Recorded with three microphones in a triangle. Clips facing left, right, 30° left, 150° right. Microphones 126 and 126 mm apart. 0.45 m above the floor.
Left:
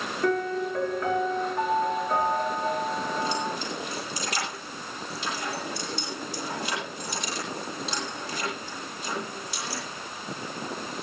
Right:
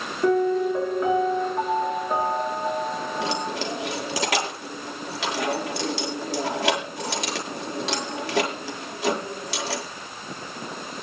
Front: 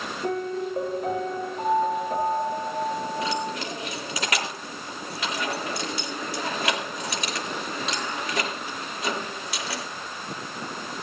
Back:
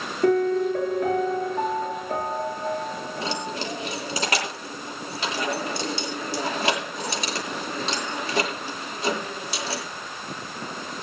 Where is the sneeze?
I don't hear a sneeze.